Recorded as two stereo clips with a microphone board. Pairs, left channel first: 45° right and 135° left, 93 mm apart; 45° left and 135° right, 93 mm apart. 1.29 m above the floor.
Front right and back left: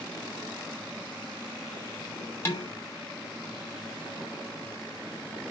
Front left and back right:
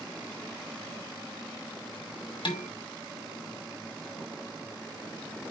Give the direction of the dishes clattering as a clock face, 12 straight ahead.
11 o'clock.